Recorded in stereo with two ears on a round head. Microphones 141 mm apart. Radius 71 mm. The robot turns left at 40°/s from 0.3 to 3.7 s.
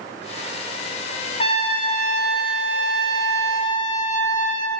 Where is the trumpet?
145° left, 4 m; by 4.7 s 50° left, 4 m.